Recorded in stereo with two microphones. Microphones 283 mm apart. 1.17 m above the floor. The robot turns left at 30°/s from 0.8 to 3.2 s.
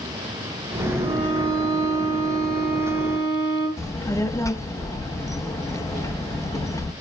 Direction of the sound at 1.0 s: 105° left.